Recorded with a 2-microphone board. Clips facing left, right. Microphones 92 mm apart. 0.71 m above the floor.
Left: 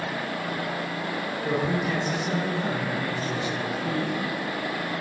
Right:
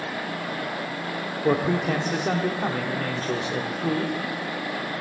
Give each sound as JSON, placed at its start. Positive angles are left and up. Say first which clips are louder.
{"t": 1.4, "sound": "a man speaking", "louder": "right 4 dB", "side_deg": -60, "distance_m": 1.7}